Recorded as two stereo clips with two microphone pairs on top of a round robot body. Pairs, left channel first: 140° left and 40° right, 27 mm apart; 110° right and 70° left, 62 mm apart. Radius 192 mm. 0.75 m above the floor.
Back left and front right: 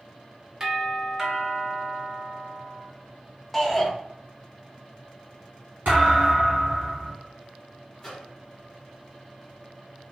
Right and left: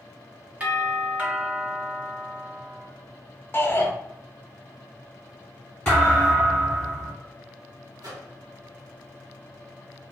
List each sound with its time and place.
0.6 s a doorbell: 20° left, 1.5 m
3.5 s a shout: 135° right, 1.0 m
5.8 s a thud: 40° right, 1.5 m
8.0 s a microwave: 70° left, 1.7 m